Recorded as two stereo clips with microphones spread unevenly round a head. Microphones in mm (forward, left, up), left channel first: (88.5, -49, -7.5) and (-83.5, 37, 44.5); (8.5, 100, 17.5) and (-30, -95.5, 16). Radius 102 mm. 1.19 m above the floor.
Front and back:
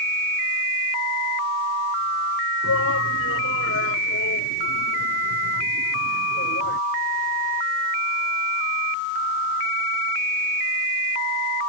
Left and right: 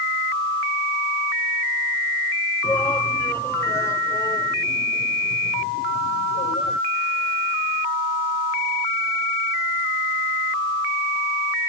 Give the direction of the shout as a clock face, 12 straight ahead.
12 o'clock.